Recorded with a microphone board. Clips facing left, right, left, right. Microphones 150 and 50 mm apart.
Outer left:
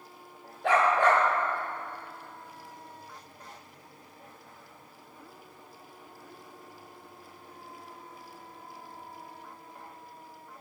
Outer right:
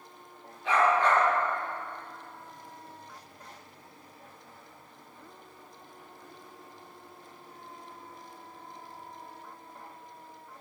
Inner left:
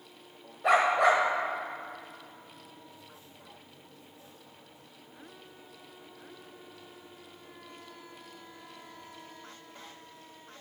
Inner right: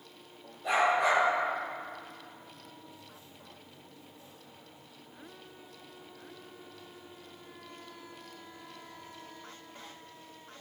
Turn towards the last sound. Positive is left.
turn(degrees=80)